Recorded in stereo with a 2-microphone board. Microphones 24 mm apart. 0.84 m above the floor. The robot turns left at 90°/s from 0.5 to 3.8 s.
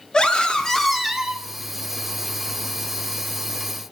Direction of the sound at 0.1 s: 30° left.